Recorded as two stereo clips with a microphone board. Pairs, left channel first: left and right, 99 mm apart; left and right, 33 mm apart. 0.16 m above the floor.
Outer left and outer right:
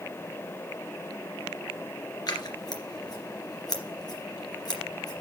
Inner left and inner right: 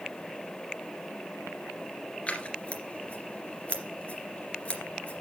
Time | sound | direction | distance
2.3 | scissors | 45° left (ahead or behind) | 2.5 m